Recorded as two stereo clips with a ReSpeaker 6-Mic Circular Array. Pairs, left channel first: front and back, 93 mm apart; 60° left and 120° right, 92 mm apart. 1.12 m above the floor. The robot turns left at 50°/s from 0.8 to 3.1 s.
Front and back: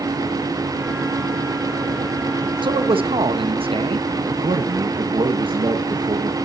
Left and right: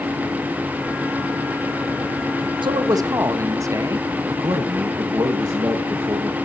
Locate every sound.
2.6 s a man speaking: 150° right, 1.2 m; by 4.1 s 175° right, 1.2 m
4.3 s a man speaking: 165° right, 1.4 m